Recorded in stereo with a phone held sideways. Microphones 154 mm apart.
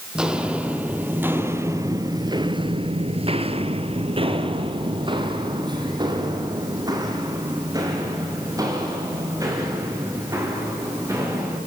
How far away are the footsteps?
About 3.5 m.